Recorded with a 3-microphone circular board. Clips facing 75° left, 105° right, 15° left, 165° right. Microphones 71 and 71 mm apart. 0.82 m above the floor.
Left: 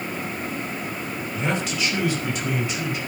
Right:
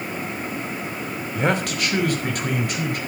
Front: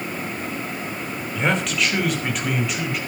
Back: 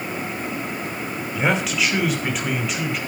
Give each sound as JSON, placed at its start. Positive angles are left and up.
{"t": 1.4, "sound": "a man speaking", "azimuth_deg": -80, "distance_m": 3.0}